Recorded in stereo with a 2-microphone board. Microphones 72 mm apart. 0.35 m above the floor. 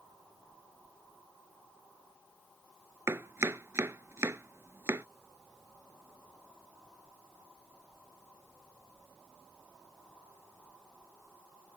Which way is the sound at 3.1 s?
40° right (ahead or behind).